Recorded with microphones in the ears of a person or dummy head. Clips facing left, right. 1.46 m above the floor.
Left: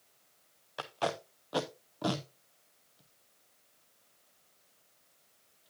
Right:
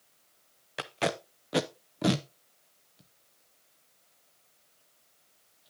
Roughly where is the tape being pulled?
Right.